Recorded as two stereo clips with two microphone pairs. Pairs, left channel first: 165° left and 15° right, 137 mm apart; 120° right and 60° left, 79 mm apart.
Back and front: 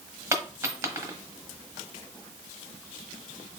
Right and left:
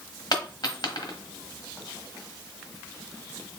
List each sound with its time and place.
0.3 s a dropped coin: 90° right, 1.1 m